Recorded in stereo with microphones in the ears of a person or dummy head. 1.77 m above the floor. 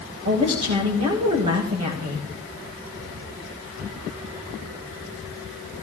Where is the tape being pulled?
I don't hear tape being pulled.